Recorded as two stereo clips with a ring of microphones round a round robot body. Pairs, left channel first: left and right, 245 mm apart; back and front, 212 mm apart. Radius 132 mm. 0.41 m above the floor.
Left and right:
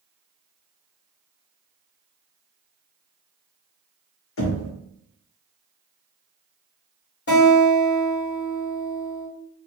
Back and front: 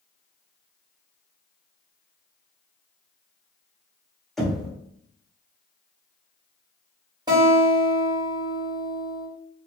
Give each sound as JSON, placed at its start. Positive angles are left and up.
{"t": 4.4, "sound": "knocking", "azimuth_deg": 90, "distance_m": 1.0}
{"t": 7.3, "sound": "a guitar", "azimuth_deg": 65, "distance_m": 1.9}